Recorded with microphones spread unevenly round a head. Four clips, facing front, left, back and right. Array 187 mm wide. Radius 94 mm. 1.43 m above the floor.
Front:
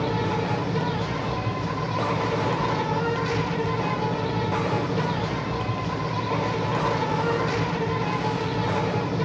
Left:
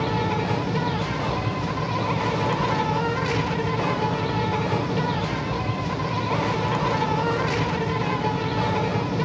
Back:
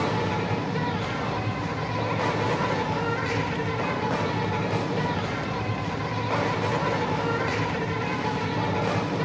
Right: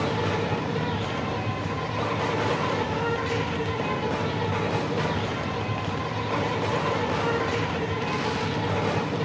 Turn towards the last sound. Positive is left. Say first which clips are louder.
# left 2 dB, front 1 dB
turn(degrees=70)